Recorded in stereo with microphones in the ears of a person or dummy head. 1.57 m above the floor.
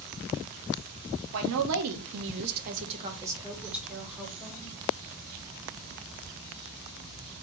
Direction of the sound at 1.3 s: 70° right (ahead or behind).